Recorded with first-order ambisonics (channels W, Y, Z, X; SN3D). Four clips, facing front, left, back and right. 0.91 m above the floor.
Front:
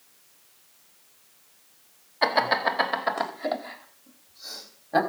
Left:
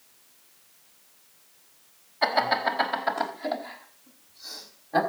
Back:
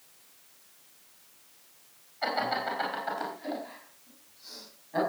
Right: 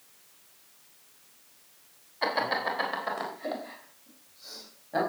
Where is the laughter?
5° left, 3 m; by 5.0 s 15° left, 5 m.